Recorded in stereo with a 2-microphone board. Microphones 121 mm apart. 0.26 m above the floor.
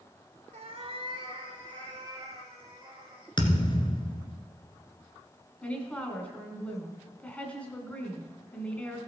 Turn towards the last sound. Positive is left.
turn(degrees=10)  # may be behind; listen again after turning